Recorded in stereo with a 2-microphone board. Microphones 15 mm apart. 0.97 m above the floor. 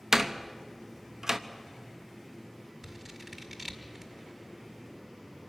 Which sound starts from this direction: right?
A door slam, at 0.1 s.